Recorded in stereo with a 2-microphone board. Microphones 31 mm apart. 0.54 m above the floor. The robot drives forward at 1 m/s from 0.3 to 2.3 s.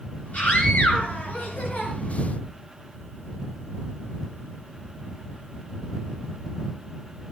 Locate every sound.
0.3 s a scream: 60° left (ahead or behind), 7 m; by 1.9 s 75° left (ahead or behind), 6 m